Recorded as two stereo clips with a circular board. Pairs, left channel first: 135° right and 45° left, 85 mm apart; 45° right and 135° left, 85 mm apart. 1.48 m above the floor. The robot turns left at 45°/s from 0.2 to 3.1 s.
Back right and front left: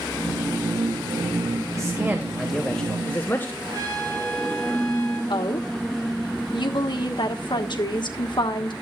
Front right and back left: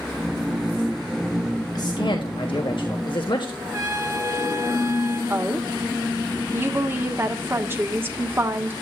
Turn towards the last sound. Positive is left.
turn(degrees=-160)